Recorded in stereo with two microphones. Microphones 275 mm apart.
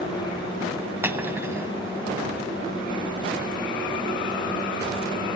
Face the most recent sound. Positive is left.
turn(degrees=-10)  # may be behind; listen again after turning